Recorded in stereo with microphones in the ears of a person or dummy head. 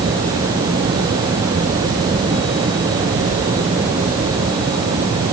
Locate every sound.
Only background noise.